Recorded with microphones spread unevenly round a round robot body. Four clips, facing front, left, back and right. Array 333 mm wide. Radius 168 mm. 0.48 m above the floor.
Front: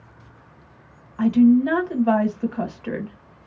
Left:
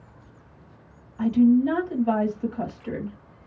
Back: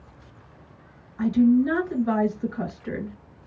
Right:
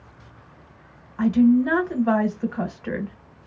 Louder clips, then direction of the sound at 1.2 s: Right 1 dB, front 3 dB; 50° right.